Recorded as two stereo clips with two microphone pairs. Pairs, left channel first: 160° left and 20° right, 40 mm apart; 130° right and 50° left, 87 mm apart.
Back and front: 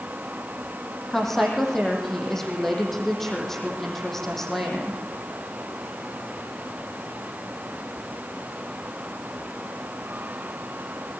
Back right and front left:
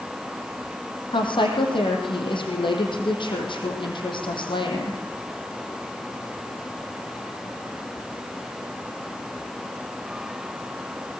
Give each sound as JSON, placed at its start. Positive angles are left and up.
{"t": 1.1, "sound": "a woman speaking", "azimuth_deg": -120, "distance_m": 5.5}